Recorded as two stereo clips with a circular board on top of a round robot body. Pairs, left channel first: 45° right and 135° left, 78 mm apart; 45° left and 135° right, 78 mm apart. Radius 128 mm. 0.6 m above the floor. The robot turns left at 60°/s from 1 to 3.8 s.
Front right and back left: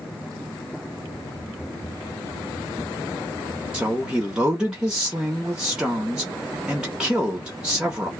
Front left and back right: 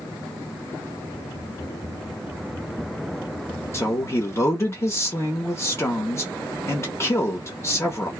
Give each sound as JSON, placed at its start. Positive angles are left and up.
{"t": 3.7, "sound": "a woman speaking", "azimuth_deg": 70, "distance_m": 1.0}